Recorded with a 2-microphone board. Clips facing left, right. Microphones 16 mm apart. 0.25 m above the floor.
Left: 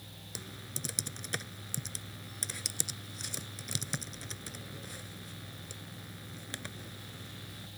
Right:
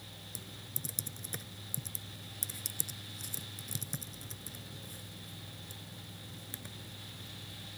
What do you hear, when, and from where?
0.3 s typing on a keyboard: 40° left (ahead or behind)